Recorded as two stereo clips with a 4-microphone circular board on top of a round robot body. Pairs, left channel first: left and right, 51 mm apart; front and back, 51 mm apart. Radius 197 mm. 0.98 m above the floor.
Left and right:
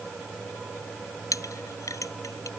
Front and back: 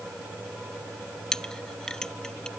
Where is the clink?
80° left.